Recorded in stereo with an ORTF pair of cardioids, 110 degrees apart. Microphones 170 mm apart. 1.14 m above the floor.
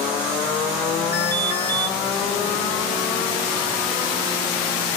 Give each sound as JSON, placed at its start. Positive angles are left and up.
{"t": 1.1, "sound": "an alarm", "azimuth_deg": 20, "distance_m": 6.0}